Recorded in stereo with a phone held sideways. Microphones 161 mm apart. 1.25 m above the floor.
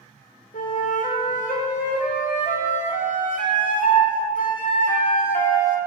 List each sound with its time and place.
0.5 s a flute: 60° left (ahead or behind), 0.8 m